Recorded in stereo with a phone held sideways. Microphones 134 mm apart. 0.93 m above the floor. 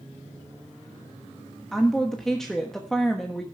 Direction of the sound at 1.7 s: 5° left (ahead or behind).